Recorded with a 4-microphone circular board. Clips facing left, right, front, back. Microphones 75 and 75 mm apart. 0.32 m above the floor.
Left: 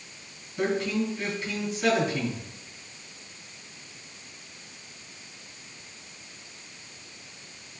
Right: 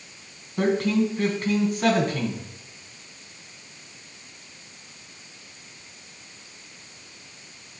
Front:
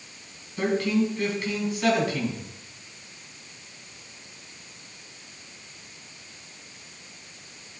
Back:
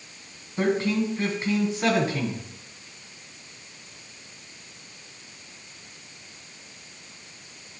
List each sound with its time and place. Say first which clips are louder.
0.6 s a man speaking: right 5 dB, even; 120° right, 3 m